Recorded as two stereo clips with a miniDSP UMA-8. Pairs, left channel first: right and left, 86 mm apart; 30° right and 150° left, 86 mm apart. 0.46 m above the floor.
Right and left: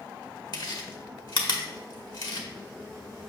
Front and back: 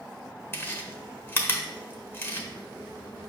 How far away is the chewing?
About 1.1 m.